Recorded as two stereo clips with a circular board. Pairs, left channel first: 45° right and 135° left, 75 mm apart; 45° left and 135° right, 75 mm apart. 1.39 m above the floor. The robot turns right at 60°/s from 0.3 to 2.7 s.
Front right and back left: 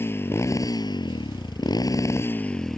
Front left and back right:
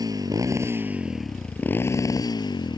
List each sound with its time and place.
0.0 s a motorcycle: 105° right; by 2.8 s 40° left